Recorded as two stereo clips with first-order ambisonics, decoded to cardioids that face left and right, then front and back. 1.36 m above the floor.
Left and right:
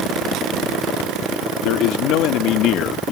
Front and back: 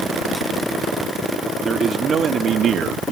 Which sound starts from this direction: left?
A man speaking, at 1.6 s.